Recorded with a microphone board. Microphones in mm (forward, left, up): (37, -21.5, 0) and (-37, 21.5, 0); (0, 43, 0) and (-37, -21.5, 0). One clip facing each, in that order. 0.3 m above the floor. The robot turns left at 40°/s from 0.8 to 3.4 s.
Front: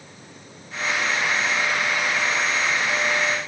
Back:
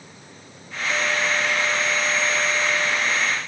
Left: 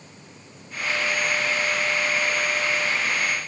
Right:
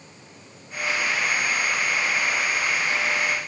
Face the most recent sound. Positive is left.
No sound to turn to.